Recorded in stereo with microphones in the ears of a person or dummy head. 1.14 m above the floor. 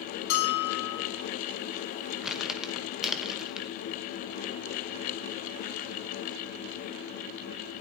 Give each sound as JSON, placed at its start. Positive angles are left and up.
{"t": 0.3, "sound": "a bell", "side_deg": 70, "distance_m": 2.5}
{"t": 2.2, "sound": "crumpling", "side_deg": 0, "distance_m": 1.3}